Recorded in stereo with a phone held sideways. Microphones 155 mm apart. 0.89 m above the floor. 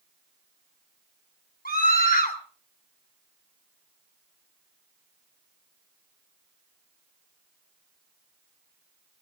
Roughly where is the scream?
Left.